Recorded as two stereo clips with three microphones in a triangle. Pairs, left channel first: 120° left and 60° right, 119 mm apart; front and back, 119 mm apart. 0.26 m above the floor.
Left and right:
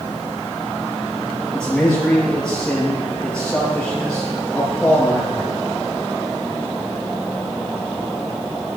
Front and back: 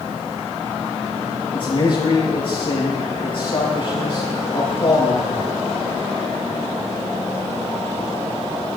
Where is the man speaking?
40° left, 5 m.